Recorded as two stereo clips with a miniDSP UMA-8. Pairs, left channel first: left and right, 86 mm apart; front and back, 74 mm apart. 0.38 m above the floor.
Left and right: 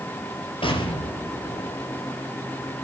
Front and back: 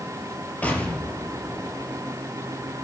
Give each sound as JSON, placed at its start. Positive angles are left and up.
{"t": 0.6, "sound": "an explosion", "azimuth_deg": 70, "distance_m": 4.5}